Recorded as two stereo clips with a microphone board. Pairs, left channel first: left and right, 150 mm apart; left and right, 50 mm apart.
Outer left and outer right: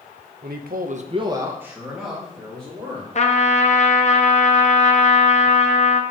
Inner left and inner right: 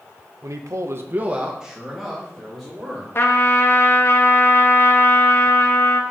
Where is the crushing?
I don't hear crushing.